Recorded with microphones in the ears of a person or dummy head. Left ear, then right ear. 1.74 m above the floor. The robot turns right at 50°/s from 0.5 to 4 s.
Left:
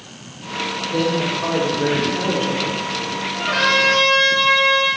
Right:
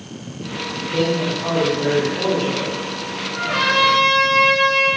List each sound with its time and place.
0.9 s a man speaking: 25° left, 0.9 m; by 2.8 s 115° left, 0.9 m
3.3 s a trumpet: 35° left, 0.8 m; by 4.9 s 70° left, 0.8 m